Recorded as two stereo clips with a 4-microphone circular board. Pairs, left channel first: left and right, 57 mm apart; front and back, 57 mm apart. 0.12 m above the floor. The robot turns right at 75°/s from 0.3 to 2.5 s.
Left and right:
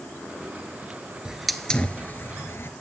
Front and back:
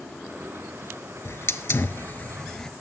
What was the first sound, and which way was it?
A hiss, 20° right.